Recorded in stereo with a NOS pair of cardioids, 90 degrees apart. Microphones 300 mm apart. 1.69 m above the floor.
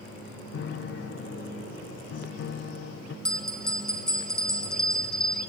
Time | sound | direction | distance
0.5 | a piano | 45° left | 0.8 m
3.2 | a bell | straight ahead | 0.9 m